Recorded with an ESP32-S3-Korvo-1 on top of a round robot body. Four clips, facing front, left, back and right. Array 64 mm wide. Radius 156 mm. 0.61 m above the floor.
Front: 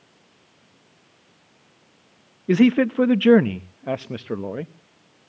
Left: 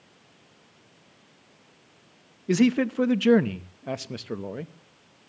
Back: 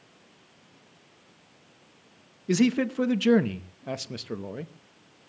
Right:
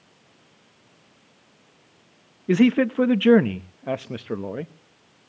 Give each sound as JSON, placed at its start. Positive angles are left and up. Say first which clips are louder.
{"t": 2.5, "sound": "a man speaking", "louder": "right 4 dB, front 7 dB", "azimuth_deg": -30, "distance_m": 1.0}